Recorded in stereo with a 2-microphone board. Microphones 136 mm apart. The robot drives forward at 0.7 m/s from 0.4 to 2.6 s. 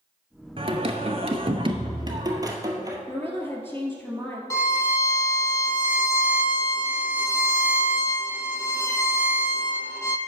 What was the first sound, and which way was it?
Singing, 45° right (ahead or behind).